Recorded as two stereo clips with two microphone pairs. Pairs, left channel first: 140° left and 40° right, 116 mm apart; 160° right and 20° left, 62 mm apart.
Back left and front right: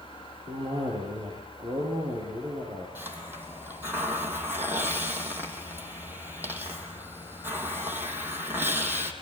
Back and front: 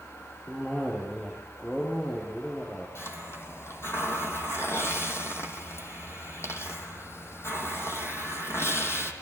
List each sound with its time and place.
0.5 s a cough: 80° right, 8 m
3.0 s a hiss: 115° right, 3 m